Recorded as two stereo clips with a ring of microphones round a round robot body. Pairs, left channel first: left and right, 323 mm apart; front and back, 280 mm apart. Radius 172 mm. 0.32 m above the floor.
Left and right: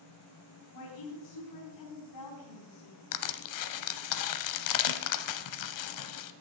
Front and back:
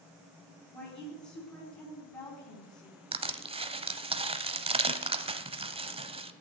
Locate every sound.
0.7 s a woman speaking: 75° left, 3.5 m
3.1 s crushing: 110° left, 0.8 m